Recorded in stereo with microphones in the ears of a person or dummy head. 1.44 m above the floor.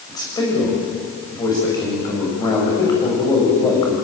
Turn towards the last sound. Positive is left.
turn(degrees=15)  # may be behind; listen again after turning